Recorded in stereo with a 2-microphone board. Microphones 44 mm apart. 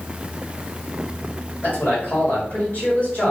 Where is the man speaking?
45° left (ahead or behind), 1.9 m.